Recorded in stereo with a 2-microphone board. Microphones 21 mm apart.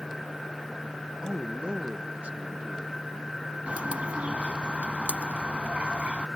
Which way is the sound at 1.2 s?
30° right (ahead or behind).